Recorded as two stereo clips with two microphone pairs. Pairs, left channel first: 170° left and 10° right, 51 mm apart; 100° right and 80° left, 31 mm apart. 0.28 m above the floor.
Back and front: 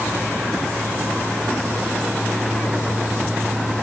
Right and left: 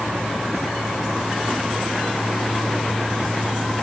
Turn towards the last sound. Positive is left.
No sound to turn to.